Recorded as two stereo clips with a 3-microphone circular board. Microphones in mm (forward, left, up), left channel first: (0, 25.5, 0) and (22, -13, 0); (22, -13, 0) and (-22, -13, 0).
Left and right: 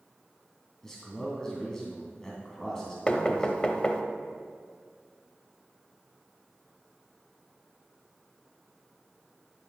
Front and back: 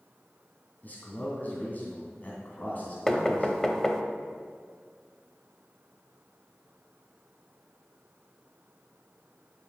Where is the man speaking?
45° left, 2.5 m.